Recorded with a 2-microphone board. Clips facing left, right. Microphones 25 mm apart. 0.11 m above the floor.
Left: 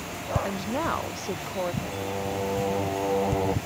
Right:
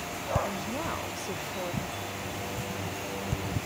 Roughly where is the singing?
Left.